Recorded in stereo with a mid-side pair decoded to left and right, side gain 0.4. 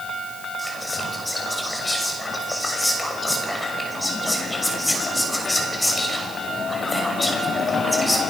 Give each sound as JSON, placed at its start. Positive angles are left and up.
{"t": 0.6, "sound": "whispering", "azimuth_deg": 20, "distance_m": 6.5}